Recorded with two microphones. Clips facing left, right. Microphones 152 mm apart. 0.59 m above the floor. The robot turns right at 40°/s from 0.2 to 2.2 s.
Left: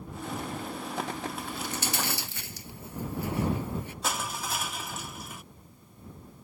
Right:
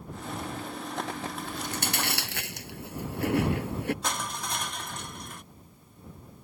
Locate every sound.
1.4 s chewing: 45° right (ahead or behind); by 3.9 s 75° right (ahead or behind)
4.0 s crushing: 5° left (ahead or behind)